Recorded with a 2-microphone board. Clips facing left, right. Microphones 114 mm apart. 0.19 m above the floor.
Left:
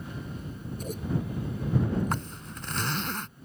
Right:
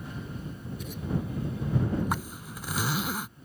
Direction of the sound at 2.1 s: 10° right (ahead or behind).